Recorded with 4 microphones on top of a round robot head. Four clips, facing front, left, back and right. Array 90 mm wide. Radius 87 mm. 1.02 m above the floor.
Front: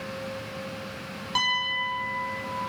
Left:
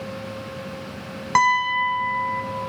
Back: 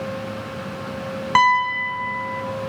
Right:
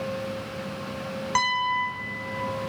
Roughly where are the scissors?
No scissors in this recording.